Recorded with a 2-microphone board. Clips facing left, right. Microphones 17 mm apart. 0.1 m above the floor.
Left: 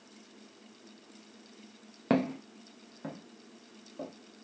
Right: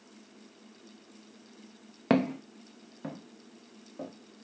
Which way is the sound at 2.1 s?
15° right (ahead or behind).